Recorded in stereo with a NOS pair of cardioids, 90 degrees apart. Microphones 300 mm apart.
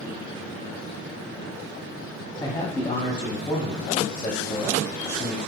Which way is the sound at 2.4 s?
15° left.